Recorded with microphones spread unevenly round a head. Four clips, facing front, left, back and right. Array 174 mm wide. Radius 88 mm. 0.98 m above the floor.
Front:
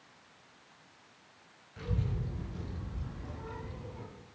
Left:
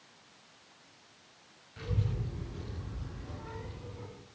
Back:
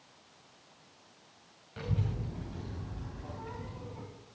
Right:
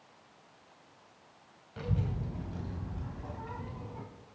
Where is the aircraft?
I don't hear an aircraft.